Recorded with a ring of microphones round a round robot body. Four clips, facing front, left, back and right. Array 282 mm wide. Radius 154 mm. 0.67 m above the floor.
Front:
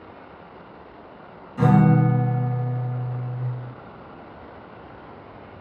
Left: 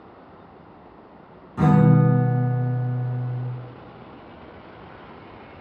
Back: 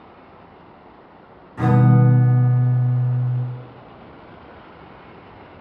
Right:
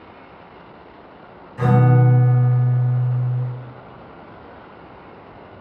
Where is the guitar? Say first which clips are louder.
Even, even; 105° left, 1.8 m.